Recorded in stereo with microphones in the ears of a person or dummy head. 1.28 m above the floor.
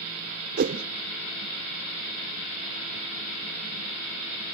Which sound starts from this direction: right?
A whoosh, at 0.6 s.